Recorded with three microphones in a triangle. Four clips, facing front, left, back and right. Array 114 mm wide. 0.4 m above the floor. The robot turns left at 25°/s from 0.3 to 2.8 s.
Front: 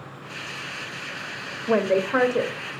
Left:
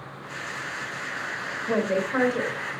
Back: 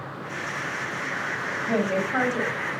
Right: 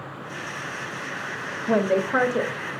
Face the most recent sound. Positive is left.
turn(degrees=-55)